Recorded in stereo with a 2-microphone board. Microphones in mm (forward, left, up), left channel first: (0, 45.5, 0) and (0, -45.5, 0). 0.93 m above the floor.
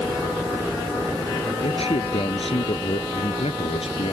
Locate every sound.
1.6 s a man speaking: 85° left